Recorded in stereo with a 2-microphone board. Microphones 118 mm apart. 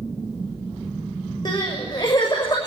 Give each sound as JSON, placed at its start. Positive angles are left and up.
{"t": 1.4, "sound": "crying", "side_deg": 40, "distance_m": 6.0}